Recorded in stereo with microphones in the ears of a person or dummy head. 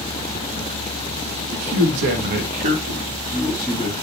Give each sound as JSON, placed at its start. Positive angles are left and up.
{"t": 1.5, "sound": "a man speaking", "side_deg": -80, "distance_m": 0.9}